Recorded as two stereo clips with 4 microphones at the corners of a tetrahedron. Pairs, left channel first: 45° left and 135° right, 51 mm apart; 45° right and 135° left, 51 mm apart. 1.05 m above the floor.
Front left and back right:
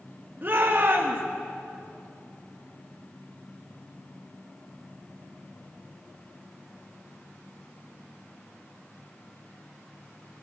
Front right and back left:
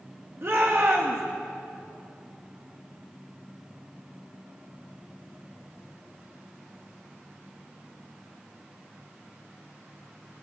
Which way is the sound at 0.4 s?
175° left.